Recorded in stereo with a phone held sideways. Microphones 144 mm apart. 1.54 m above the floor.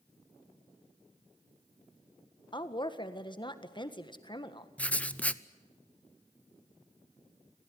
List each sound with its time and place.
2.5 s a woman speaking: 35° left (ahead or behind), 1.6 m
4.8 s writing: 10° left (ahead or behind), 0.7 m